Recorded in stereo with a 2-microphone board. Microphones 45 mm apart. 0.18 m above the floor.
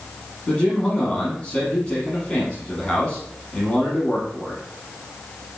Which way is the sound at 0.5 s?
20° left (ahead or behind).